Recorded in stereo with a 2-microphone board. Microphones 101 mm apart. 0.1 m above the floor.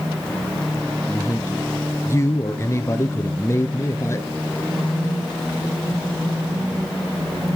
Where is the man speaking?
30° left (ahead or behind), 1.3 m.